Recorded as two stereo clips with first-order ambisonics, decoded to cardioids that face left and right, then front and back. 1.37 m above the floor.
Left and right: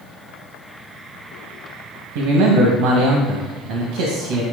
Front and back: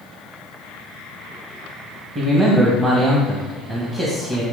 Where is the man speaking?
110° right, 1.8 m.